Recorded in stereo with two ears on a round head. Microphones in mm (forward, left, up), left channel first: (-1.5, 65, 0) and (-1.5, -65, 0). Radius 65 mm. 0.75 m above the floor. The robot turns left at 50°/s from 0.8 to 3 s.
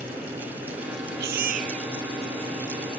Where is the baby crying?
100° right; by 2.5 s 170° right.